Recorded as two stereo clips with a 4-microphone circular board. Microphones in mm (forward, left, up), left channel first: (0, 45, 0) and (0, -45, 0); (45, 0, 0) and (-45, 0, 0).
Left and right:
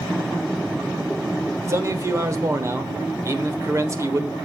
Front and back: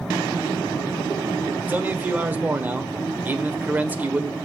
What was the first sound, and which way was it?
A man speaking, 120° right.